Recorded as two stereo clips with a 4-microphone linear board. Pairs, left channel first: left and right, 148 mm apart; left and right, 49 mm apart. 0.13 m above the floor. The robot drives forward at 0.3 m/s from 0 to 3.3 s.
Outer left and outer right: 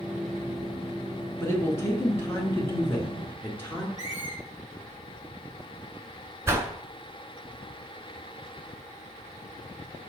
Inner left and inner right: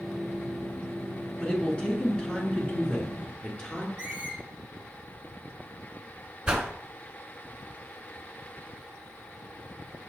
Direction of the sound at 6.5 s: 20° right (ahead or behind).